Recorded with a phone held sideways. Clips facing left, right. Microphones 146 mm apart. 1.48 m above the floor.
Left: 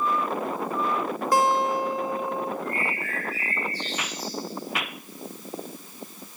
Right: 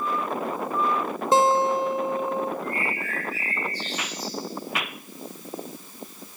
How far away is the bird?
About 9 m.